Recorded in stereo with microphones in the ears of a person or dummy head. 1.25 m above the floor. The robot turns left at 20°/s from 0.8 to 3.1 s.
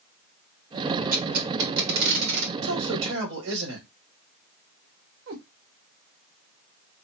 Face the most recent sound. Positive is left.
turn(degrees=-65)  # may be behind; listen again after turning